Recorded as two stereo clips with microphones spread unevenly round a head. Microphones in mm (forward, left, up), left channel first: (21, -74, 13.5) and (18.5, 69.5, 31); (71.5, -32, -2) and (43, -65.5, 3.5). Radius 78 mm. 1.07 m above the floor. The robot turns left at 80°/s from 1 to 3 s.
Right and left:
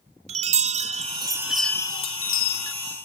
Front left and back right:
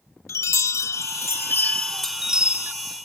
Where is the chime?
50° left, 1.4 m; by 2.7 s 90° right, 1.4 m.